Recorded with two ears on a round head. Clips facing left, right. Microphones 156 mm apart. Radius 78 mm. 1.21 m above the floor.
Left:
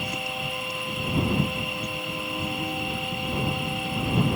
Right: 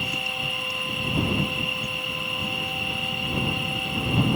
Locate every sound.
0.0 s an insect: 30° left (ahead or behind)